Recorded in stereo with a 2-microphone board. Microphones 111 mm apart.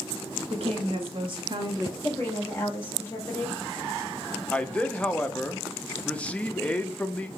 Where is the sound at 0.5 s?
60° right (ahead or behind), 1.4 m; by 1.9 s 35° right (ahead or behind), 1.4 m.